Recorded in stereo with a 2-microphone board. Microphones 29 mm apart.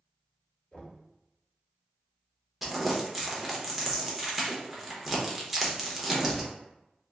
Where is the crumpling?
Centre (ahead or behind), 0.7 m.